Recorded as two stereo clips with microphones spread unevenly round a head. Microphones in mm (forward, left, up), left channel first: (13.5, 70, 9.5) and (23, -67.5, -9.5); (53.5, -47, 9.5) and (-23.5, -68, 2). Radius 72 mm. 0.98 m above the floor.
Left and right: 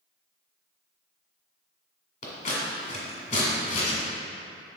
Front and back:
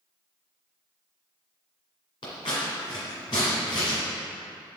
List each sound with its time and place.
2.2 s scissors: 70° left, 2 m